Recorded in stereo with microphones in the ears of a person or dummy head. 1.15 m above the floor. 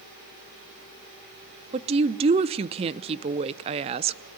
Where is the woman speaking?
30° right (ahead or behind), 0.7 m.